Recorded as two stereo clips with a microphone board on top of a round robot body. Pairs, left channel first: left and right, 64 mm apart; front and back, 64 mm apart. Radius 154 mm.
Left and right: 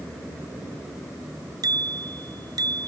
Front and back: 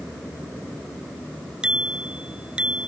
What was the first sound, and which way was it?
A bicycle bell, 105° right.